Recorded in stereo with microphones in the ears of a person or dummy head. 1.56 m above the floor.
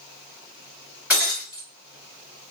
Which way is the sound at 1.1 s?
10° right (ahead or behind).